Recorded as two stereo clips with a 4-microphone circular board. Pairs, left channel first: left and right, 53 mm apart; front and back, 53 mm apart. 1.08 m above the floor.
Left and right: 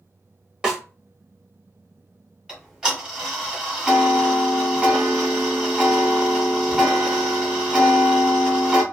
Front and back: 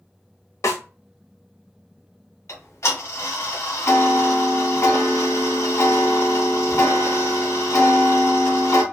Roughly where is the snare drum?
Ahead.